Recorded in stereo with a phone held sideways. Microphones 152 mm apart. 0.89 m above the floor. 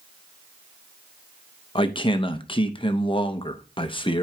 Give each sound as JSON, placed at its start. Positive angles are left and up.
{"t": 1.8, "sound": "a man speaking", "side_deg": 35, "distance_m": 0.7}